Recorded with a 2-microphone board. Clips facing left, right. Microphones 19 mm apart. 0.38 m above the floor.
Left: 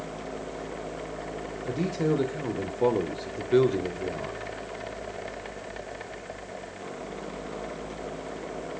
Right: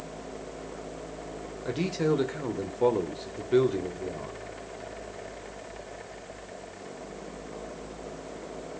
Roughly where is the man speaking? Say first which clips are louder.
Even; right.